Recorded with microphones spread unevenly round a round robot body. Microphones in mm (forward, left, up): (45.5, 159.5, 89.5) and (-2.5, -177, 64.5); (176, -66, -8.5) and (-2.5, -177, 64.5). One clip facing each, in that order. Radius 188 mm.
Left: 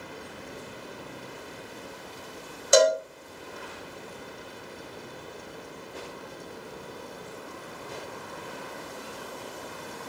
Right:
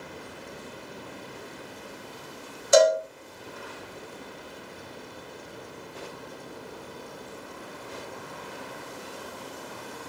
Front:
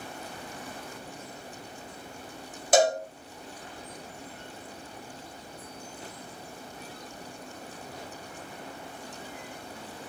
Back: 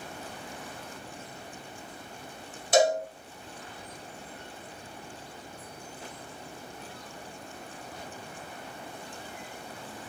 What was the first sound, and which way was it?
A cowbell, 35° left.